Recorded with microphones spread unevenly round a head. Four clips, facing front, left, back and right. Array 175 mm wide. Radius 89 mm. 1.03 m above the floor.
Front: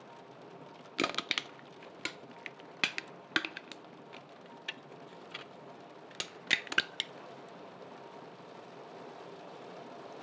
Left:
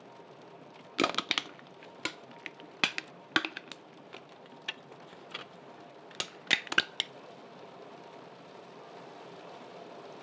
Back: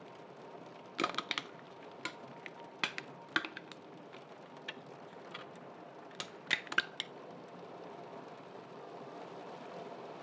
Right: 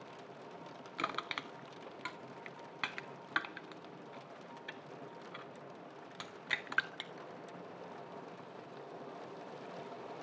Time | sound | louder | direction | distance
1.0 | crushing | left 8 dB, front 2 dB | 75° left | 0.5 m